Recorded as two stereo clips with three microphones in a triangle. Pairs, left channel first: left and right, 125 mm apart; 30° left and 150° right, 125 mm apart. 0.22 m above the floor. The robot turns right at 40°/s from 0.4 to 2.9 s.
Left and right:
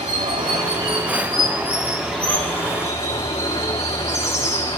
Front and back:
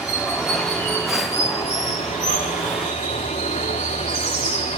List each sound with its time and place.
0.0 s running water: 60° right, 4 m; by 4.8 s 40° left, 4 m